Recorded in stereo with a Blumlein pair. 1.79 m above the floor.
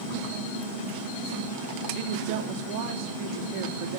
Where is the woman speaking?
40° right, 3 m.